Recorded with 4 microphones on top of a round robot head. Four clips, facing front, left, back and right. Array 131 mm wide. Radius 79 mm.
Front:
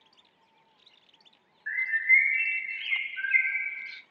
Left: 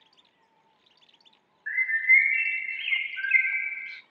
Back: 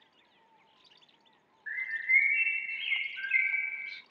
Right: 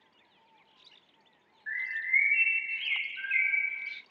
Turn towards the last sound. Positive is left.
turn(degrees=55)